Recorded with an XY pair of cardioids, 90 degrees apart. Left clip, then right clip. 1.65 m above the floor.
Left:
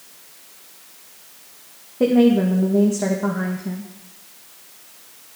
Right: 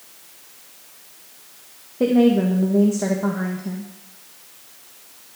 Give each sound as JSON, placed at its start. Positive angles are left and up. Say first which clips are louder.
{"t": 2.0, "sound": "a woman speaking", "louder": "left 1 dB", "azimuth_deg": 5, "distance_m": 1.7}